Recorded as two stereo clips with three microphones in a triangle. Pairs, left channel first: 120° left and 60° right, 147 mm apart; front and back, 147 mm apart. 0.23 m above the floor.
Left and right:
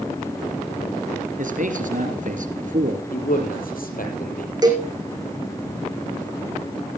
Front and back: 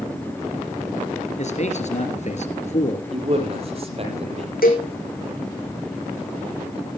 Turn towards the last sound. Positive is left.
turn(degrees=5)